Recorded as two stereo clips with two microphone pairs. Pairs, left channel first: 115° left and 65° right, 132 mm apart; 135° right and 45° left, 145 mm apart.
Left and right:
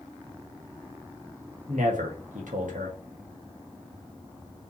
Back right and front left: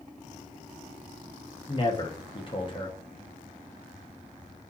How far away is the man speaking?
About 2 m.